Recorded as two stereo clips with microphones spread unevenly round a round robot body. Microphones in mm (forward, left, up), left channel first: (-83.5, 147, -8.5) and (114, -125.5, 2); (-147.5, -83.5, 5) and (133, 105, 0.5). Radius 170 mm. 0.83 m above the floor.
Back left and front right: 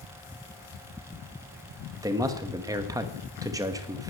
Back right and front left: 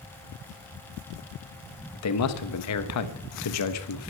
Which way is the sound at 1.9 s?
135° right.